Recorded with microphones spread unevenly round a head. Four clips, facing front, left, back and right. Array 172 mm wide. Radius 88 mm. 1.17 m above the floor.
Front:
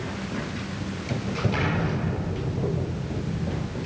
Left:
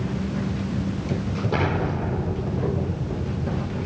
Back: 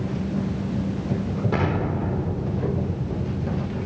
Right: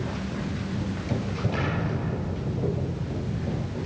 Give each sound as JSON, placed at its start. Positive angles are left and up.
{"t": 1.5, "sound": "an explosion", "azimuth_deg": 120, "distance_m": 5.0}